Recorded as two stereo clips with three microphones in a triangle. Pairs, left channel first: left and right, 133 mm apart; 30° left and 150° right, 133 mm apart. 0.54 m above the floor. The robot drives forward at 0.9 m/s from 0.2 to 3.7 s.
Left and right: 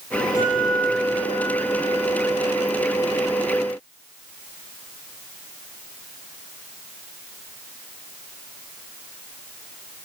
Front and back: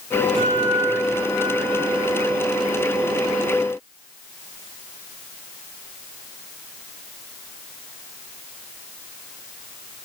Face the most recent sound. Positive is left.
turn(degrees=160)